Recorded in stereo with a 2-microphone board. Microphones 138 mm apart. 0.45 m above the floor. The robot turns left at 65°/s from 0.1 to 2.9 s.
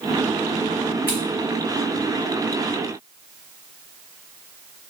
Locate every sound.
1.1 s scissors: 15° right (ahead or behind), 1.2 m; by 1.2 s 20° right (ahead or behind), 1.2 m